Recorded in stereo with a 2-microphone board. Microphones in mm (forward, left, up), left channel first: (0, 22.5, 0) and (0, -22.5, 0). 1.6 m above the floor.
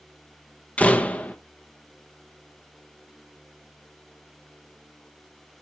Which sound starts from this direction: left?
A door slam, at 0.8 s.